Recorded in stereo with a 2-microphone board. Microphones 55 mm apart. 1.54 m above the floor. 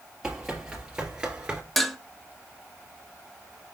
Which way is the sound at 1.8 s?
Centre (ahead or behind).